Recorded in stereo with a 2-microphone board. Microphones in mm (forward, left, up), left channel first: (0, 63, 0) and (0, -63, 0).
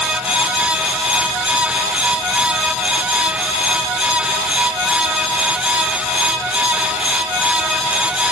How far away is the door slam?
I don't hear a door slam.